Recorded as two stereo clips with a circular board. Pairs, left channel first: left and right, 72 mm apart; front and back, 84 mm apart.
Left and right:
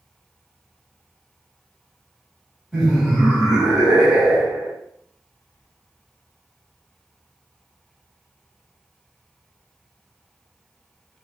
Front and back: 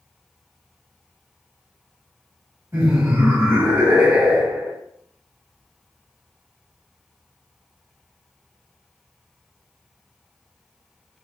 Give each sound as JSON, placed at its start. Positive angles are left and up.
{"t": 2.7, "sound": "laughter", "azimuth_deg": -170, "distance_m": 1.6}